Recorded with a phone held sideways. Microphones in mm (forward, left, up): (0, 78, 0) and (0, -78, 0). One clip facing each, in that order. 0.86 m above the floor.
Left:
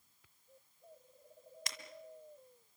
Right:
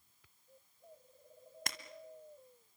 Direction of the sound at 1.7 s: 60° right (ahead or behind).